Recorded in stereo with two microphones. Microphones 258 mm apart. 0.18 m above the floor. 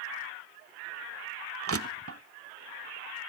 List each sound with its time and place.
1.7 s crushing: 55° right (ahead or behind), 0.7 m